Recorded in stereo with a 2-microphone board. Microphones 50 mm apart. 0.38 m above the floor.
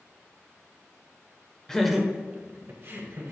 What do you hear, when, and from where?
1.7 s laughter: 15° left (ahead or behind), 1.0 m; by 3.3 s 55° right (ahead or behind), 1.8 m